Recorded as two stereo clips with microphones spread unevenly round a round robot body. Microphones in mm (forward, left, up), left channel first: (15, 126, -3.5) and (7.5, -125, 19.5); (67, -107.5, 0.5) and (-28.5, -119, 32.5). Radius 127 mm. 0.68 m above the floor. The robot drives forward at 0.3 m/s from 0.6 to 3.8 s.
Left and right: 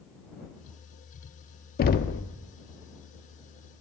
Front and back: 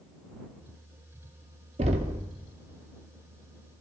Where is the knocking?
135° left, 0.6 m; by 2.2 s 145° left, 0.7 m.